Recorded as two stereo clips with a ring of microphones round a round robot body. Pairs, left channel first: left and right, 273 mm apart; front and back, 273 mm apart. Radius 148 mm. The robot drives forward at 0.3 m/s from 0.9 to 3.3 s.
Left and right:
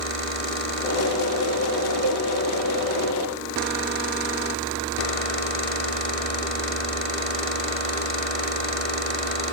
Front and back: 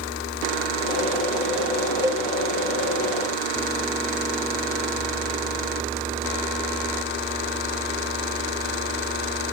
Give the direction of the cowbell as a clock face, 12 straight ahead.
3 o'clock.